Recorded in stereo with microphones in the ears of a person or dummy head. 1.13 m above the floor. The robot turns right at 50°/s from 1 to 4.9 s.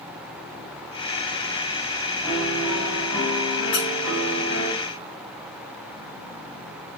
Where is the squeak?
85° left, 5.5 m; by 3.9 s 80° left, 5.5 m.